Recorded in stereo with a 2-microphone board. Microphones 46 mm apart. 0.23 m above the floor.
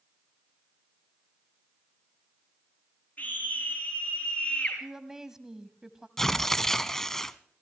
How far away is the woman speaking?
About 1.1 m.